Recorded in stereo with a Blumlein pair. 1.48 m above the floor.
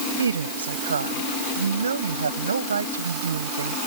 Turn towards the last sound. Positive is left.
turn(degrees=-70)